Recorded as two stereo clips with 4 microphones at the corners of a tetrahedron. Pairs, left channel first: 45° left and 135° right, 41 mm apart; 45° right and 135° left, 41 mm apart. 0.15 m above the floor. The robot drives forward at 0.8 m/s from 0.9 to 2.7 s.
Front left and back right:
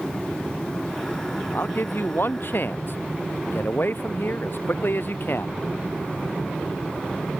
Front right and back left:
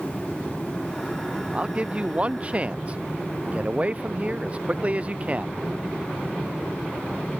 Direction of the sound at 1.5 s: 75° left.